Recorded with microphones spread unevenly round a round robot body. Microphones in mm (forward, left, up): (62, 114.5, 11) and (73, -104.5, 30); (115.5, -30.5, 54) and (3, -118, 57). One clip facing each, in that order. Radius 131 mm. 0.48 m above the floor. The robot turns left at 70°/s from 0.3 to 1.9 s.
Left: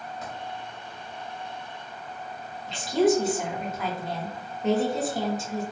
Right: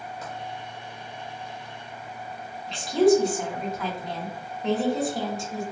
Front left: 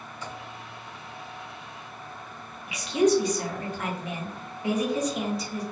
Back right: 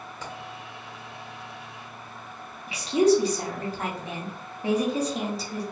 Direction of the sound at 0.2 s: 150° right.